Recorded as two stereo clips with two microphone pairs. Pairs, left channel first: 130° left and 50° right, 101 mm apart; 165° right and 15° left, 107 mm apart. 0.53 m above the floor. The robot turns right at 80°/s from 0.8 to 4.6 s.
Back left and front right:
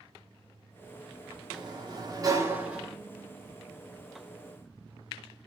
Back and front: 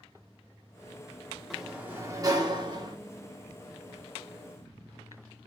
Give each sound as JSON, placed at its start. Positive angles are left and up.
{"t": 1.5, "sound": "a sliding door", "azimuth_deg": -80, "distance_m": 0.8}